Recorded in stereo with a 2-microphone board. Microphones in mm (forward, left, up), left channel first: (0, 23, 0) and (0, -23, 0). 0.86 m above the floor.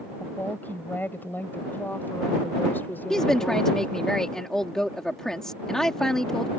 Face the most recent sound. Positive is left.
turn(degrees=10)  # may be behind; listen again after turning